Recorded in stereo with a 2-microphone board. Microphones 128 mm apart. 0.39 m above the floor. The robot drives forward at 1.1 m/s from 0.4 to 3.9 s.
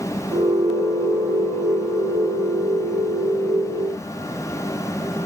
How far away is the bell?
I don't hear a bell.